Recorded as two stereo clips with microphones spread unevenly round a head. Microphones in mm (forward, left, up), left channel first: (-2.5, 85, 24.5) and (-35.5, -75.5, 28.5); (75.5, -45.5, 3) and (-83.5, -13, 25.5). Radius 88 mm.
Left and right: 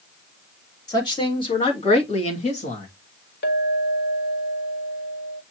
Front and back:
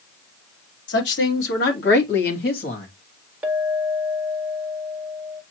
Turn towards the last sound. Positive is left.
turn(degrees=90)